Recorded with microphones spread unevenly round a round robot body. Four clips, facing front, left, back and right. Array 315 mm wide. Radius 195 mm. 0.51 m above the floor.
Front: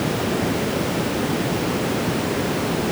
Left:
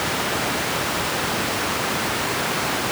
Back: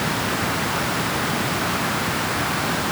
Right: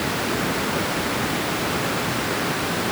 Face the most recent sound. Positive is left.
No sound to turn to.